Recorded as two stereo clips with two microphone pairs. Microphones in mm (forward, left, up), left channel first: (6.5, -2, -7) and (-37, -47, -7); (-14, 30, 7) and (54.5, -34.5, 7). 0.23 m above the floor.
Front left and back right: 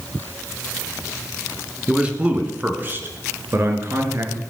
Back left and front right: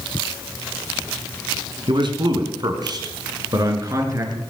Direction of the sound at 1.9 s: 60° right.